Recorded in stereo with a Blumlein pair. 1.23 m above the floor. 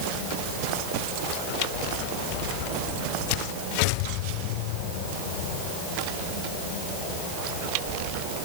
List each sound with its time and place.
Only background noise.